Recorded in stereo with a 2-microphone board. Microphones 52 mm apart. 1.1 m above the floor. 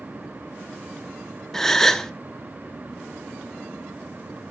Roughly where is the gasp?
Centre.